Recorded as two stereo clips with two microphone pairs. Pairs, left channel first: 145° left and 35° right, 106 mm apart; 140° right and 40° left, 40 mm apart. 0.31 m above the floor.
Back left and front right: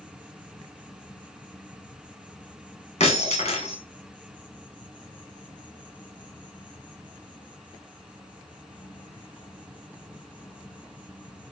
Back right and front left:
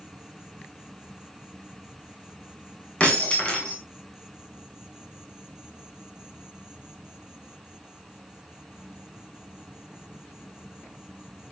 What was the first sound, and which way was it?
An insect, 140° right.